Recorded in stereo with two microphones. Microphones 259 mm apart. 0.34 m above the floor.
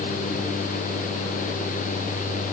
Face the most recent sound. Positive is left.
No sound to turn to.